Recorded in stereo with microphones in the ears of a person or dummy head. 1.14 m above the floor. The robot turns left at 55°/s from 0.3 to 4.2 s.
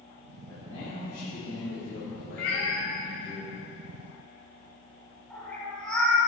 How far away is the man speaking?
About 2.5 m.